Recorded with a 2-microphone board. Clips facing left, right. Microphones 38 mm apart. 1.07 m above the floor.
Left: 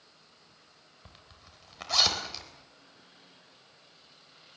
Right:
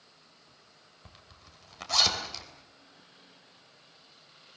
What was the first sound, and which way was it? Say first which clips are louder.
A zipper: even; 5° left (ahead or behind).